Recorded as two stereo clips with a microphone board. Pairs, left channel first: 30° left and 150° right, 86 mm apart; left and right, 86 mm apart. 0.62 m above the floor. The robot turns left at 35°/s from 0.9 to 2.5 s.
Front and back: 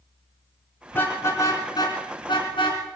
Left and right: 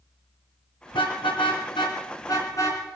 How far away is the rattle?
No rattle in this recording.